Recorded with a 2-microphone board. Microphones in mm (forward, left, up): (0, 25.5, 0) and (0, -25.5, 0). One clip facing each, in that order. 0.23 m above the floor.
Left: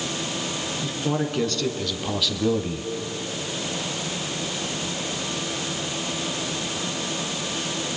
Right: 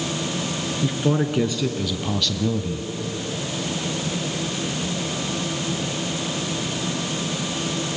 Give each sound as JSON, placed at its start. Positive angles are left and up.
{"t": 0.8, "sound": "a man speaking", "side_deg": -15, "distance_m": 2.5}